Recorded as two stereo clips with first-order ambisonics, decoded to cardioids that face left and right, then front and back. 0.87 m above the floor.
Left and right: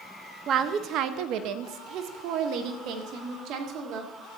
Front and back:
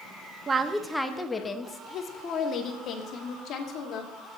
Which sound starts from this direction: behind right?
A woman speaking, at 0.5 s.